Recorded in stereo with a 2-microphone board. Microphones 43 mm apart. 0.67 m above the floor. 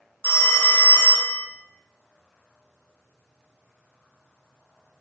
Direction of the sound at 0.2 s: 50° left (ahead or behind).